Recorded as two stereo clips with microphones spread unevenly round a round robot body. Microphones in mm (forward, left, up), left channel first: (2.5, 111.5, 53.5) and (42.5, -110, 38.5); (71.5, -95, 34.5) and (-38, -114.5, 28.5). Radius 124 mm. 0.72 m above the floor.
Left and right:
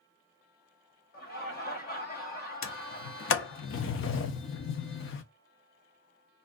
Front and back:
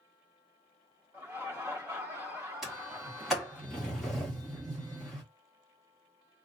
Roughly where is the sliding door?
Left.